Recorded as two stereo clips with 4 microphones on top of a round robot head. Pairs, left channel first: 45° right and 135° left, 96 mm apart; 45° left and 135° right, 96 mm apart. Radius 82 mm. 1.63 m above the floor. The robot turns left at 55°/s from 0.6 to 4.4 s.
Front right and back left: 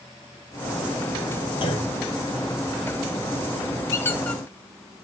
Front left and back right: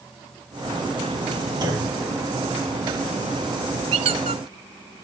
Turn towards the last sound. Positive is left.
turn(degrees=-130)